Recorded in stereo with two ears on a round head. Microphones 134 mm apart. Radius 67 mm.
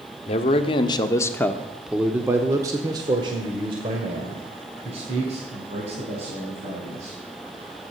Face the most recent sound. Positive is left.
turn(degrees=-45)  # may be behind; listen again after turning